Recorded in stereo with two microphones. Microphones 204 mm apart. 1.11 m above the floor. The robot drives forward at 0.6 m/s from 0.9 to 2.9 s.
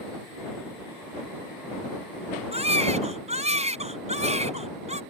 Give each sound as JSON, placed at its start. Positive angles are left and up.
{"t": 2.5, "sound": "a baby crying", "side_deg": -30}